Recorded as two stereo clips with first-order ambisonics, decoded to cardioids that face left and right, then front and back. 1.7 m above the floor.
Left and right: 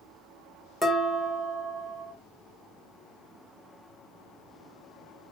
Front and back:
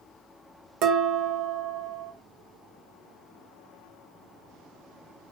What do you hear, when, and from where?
0.8 s dishes clattering: 175° right, 0.8 m